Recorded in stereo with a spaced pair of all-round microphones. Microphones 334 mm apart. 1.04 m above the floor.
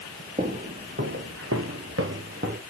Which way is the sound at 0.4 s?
25° right (ahead or behind).